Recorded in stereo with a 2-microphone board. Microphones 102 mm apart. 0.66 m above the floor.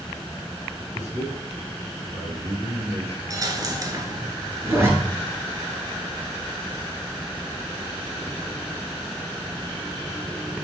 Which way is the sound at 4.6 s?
25° right (ahead or behind).